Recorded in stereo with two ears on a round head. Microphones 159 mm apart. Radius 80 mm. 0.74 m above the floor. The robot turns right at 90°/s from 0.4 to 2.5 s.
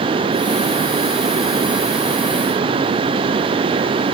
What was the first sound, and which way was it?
Only background noise.